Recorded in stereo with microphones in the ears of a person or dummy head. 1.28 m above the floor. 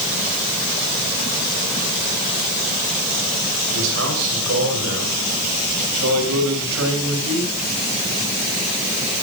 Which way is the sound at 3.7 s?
75° right (ahead or behind).